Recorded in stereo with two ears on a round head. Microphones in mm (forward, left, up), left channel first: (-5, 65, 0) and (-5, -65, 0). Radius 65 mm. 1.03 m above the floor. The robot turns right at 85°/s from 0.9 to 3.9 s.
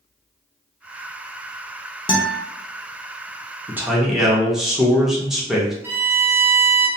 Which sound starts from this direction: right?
A man speaking, at 3.7 s.